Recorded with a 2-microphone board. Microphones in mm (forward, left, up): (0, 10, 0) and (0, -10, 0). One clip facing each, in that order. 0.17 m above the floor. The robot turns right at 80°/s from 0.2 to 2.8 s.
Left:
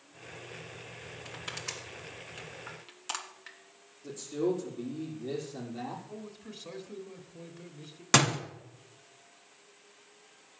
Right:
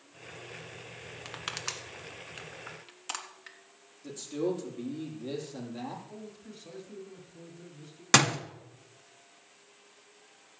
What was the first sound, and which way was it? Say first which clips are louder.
Crushing: right 3 dB; 40° right (ahead or behind).